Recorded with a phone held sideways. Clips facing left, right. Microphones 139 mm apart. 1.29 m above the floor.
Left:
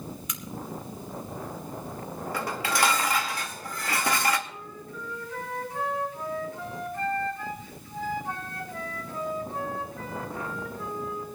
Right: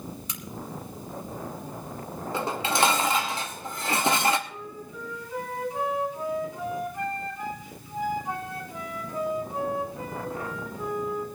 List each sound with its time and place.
0.3 s a crack: 35° right (ahead or behind), 1.6 m
2.3 s dishes clattering: 25° right (ahead or behind), 1.1 m
4.5 s a flute: 15° right (ahead or behind), 3.5 m